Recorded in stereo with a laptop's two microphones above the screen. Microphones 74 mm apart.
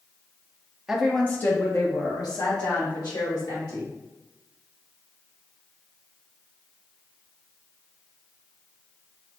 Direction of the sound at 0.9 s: 5° right (ahead or behind).